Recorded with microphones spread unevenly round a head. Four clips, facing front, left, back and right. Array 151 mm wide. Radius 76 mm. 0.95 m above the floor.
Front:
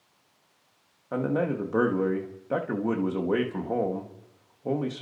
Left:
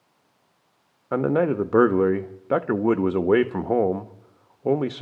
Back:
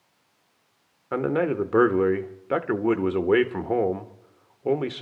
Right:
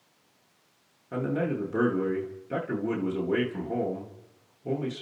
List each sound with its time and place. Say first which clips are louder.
1.1 s a man speaking: left 8 dB, back 3 dB; 100° left, 1.0 m